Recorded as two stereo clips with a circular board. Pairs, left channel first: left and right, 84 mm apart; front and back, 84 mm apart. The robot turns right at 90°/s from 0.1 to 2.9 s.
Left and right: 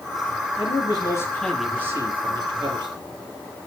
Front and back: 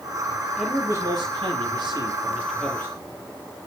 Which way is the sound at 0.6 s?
90° left.